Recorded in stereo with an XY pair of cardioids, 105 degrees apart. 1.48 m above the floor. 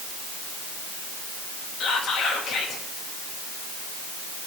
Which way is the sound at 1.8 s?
70° left.